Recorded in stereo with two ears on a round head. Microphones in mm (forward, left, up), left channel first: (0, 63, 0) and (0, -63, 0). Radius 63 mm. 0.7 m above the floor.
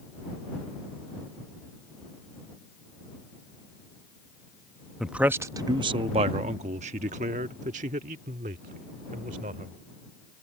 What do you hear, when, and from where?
5.0 s a man speaking: centre (ahead or behind); by 9.7 s 60° right (ahead or behind)